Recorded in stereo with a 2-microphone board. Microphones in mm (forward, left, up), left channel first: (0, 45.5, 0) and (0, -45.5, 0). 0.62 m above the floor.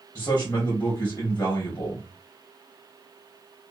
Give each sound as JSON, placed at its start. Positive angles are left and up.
{"t": 0.1, "sound": "a man speaking", "side_deg": 40, "distance_m": 1.2}